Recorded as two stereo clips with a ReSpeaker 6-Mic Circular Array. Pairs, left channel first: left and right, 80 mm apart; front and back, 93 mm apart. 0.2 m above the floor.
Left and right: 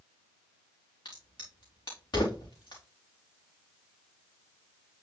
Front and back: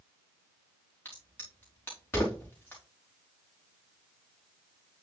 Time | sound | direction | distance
1.1 | a crack | 65° left | 4 m